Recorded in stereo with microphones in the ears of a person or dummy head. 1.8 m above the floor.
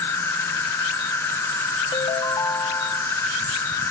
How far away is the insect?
About 1.6 m.